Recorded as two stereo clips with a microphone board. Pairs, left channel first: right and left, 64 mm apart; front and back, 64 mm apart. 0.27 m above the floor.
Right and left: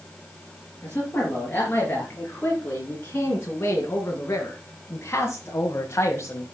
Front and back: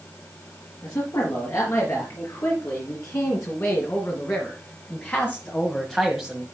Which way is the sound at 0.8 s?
30° right.